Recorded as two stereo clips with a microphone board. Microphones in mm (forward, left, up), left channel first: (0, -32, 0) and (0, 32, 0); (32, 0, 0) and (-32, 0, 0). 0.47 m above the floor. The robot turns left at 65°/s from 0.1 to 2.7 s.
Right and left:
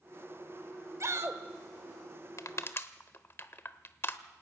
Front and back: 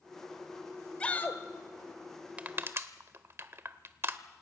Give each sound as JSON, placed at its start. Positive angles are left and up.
{"t": 1.0, "sound": "a shout", "azimuth_deg": 70, "distance_m": 1.8}
{"t": 2.4, "sound": "crushing", "azimuth_deg": -115, "distance_m": 0.9}